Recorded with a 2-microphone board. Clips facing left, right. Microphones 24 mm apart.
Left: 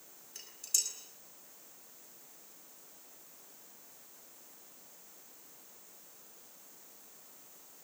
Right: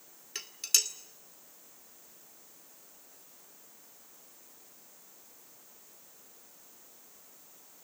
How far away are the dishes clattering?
About 2.5 m.